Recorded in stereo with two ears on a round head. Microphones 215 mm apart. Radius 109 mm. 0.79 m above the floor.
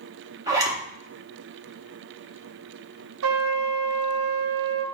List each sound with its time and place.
0.5 s a zipper: 15° right (ahead or behind), 0.8 m
3.2 s a trumpet: 60° right (ahead or behind), 0.5 m